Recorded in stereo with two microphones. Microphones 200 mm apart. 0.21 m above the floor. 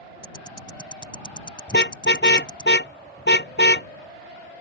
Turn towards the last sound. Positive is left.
turn(degrees=65)  # may be behind; listen again after turning